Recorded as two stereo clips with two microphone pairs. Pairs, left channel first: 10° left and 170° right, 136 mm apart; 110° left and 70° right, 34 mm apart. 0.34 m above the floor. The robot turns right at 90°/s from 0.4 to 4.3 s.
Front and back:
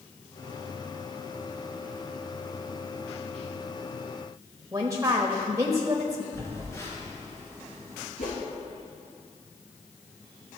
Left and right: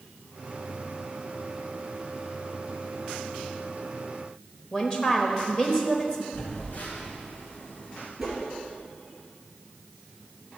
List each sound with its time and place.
4.7 s a woman speaking: 155° left, 1.0 m
6.3 s a phone buzzing: 80° left, 3 m
8.2 s a whoosh: 10° left, 3 m